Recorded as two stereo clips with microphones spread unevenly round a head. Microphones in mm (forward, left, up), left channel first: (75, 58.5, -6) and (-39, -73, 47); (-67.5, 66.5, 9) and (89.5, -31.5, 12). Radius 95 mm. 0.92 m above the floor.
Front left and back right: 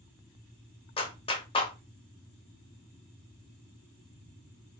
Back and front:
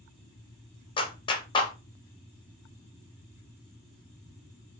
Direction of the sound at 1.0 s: 90° left.